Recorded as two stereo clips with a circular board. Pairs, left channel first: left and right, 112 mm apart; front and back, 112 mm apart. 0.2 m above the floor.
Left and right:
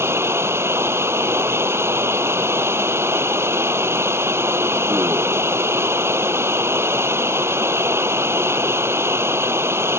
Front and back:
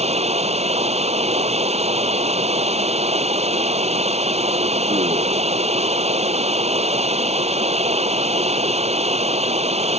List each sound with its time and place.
0.0 s running water: 160° right